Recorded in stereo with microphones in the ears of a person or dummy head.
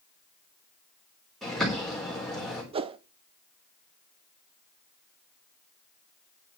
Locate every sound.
1.4 s a bird: centre (ahead or behind), 3.5 m
2.7 s a whoosh: 30° right (ahead or behind), 0.6 m